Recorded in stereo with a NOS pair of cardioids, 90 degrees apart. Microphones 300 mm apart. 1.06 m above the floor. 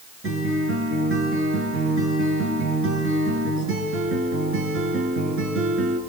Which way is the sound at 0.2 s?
45° right.